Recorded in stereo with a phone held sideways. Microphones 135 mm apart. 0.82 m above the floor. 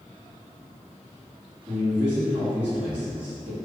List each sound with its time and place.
1.7 s a man speaking: 10° right (ahead or behind), 1.8 m